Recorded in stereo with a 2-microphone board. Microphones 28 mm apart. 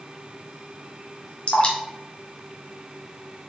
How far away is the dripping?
About 1.6 m.